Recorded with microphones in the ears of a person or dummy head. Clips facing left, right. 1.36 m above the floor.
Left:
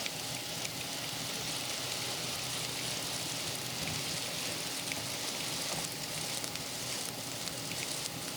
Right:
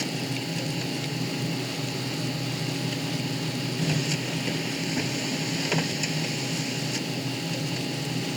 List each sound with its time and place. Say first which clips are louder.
0.0 s a machine running: right 14 dB; 90° right